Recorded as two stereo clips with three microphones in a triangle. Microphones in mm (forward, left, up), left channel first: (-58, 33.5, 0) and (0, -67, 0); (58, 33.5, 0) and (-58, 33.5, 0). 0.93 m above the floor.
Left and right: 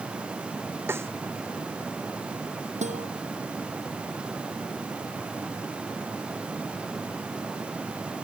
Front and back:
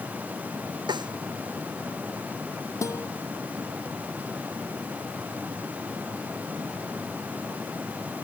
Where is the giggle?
I don't hear a giggle.